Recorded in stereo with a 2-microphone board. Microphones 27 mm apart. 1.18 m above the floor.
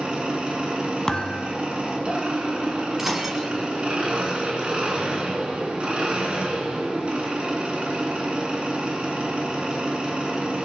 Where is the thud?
25° left (ahead or behind), 0.8 m.